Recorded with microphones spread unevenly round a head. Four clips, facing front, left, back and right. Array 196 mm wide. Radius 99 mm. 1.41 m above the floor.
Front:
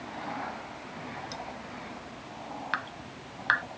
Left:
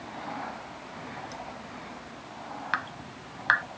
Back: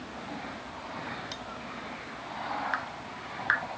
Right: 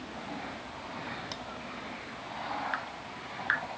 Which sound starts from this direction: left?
Dripping, at 2.7 s.